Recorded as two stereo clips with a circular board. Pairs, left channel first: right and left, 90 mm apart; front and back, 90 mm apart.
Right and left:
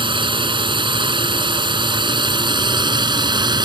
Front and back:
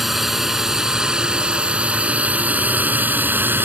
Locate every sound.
0.0 s a drone: 95° left; by 3.7 s 115° left